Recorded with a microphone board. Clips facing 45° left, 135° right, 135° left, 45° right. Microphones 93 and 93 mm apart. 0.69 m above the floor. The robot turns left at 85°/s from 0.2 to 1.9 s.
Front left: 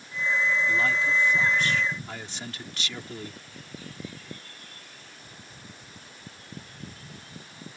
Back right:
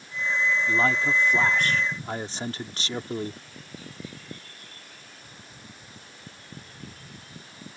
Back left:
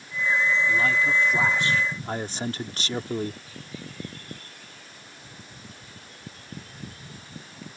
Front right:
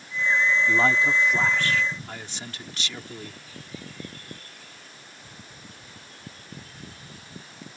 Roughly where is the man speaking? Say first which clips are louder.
Back right 2 dB, front right 2 dB; right.